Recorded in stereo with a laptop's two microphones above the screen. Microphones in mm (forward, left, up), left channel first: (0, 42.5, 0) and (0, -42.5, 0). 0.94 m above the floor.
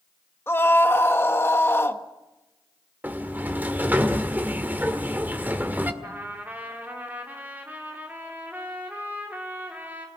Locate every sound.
0.5 s a scream: 30° left (ahead or behind), 1.2 m
3.0 s a sliding door: 20° right (ahead or behind), 1.8 m
6.0 s a trumpet: 20° right (ahead or behind), 2.5 m